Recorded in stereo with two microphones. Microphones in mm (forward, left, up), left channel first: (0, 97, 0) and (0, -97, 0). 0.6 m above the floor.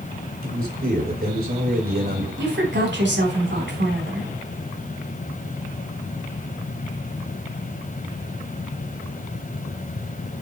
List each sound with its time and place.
0.4 s a man speaking: 50° right (ahead or behind), 3 m
2.4 s a woman speaking: 70° right (ahead or behind), 4 m